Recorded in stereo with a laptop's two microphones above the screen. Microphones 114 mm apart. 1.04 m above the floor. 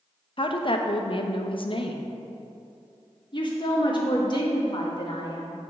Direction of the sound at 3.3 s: 45° left (ahead or behind).